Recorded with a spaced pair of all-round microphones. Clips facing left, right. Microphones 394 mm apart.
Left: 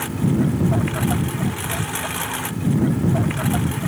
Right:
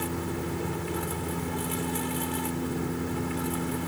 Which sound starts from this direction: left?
A lawn mower, at 0.0 s.